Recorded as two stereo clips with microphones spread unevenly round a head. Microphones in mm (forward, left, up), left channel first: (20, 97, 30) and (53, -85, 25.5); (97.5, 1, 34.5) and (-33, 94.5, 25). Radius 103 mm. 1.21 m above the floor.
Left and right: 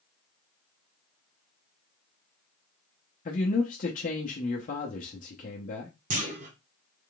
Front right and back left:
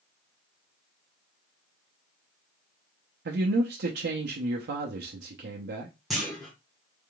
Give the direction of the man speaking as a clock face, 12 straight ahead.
7 o'clock.